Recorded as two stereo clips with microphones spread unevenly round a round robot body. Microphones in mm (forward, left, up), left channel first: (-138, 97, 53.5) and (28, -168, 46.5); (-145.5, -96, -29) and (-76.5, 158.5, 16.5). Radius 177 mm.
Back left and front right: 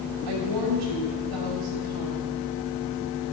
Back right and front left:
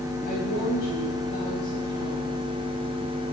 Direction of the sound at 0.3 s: 40° right.